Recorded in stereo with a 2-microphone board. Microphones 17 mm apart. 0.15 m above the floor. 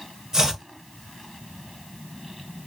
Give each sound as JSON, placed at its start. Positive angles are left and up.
{"t": 0.3, "sound": "chopping", "side_deg": -35, "distance_m": 1.4}